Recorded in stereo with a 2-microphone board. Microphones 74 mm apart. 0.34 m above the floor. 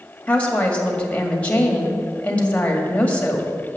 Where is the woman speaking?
20° left (ahead or behind), 1.9 m.